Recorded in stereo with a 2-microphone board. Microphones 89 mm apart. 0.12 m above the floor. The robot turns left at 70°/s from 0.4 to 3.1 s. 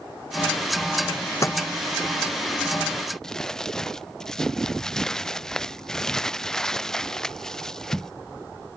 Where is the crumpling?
5° left (ahead or behind).